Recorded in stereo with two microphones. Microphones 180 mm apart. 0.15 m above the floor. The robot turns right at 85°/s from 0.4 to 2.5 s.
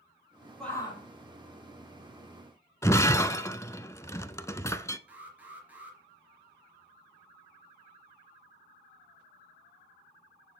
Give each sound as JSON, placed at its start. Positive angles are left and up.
{"t": 0.6, "sound": "a shout", "azimuth_deg": 0, "distance_m": 5.5}
{"t": 2.8, "sound": "breaking glass", "side_deg": 15, "distance_m": 0.5}
{"t": 5.1, "sound": "an alarm", "side_deg": -10, "distance_m": 3.5}